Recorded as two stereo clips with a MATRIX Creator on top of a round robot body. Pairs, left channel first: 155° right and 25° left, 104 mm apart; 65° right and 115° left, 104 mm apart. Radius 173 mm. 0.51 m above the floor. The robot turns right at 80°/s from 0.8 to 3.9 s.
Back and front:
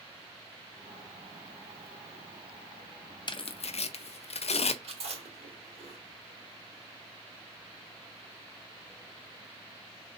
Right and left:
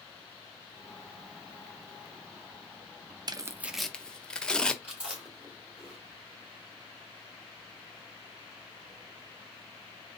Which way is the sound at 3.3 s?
160° left.